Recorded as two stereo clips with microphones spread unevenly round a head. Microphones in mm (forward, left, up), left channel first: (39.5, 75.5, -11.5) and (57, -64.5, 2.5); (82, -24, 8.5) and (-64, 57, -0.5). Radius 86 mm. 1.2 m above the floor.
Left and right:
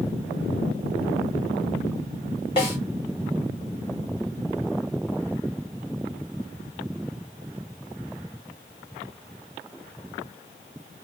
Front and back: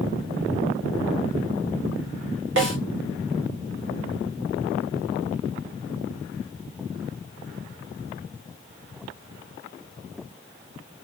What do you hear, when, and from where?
2.6 s a snare drum: 160° left, 1.2 m